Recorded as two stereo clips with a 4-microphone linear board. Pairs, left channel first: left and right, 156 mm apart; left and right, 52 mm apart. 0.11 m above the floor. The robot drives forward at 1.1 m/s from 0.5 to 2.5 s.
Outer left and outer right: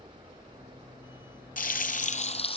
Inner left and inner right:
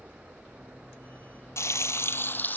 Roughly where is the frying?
Left.